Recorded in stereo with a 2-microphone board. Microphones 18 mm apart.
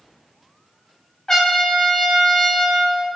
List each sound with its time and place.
1.3 s a trumpet: 35° left (ahead or behind), 0.8 m